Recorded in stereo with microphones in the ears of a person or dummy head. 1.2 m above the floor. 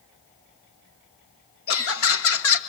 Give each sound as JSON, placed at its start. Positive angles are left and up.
{"t": 1.7, "sound": "laughter", "side_deg": 70, "distance_m": 1.7}